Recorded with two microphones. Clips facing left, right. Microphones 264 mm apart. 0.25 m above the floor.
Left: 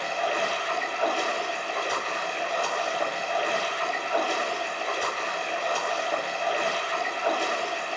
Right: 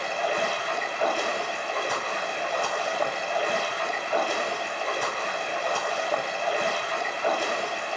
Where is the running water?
55° right (ahead or behind), 0.9 m.